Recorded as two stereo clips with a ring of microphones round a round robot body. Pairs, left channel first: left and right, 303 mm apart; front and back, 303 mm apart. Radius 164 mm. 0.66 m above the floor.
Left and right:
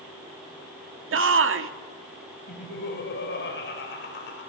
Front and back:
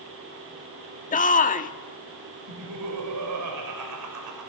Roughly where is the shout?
Ahead right.